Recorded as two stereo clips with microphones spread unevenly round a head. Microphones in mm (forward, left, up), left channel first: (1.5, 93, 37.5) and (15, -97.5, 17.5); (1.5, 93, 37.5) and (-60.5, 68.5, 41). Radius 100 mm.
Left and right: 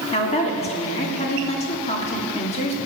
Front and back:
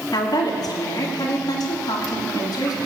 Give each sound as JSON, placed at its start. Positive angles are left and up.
{"t": 0.1, "sound": "a woman speaking", "azimuth_deg": 35, "distance_m": 2.5}